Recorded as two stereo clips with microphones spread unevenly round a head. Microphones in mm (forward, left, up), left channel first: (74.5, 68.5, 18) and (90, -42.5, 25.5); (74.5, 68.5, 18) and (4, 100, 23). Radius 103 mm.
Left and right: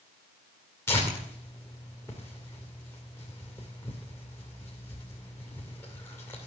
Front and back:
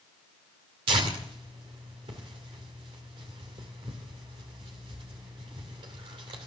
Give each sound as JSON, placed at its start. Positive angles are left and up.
{"t": 0.9, "sound": "tearing paper", "azimuth_deg": 175, "distance_m": 2.0}